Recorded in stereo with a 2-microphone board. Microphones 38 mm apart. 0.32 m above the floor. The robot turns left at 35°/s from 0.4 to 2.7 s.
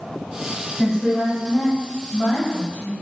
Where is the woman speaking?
175° right, 1.8 m; by 3.0 s 115° left, 1.8 m.